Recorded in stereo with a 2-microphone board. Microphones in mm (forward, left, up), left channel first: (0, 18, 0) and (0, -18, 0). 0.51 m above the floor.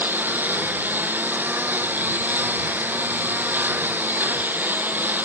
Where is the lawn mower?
65° right (ahead or behind).